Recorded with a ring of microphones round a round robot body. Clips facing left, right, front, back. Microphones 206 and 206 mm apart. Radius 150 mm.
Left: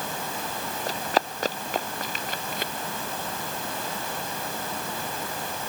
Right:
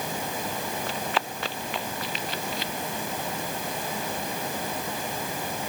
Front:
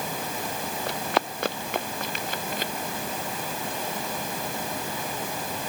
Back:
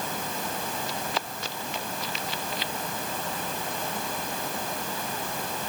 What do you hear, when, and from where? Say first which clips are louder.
0.9 s running footsteps: left 7 dB, front 5 dB; 35° left; by 2.7 s 45° left